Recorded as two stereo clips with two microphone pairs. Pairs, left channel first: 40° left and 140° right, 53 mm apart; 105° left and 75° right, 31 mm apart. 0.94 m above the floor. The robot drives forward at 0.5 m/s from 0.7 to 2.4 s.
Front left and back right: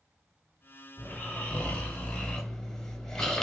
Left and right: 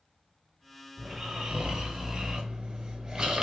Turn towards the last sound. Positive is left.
turn(degrees=-25)